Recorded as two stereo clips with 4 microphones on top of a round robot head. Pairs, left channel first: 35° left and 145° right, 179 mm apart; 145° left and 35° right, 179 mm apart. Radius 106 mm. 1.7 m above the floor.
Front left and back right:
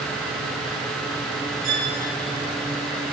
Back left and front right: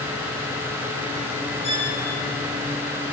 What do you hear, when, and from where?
1.6 s a violin: 160° right, 8 m